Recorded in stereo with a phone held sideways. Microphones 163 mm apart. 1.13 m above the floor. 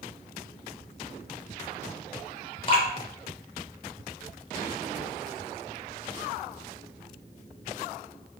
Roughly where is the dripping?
Left.